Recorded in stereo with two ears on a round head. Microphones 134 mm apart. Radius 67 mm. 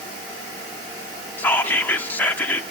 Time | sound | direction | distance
1.4 | whispering | 10° left (ahead or behind) | 0.8 m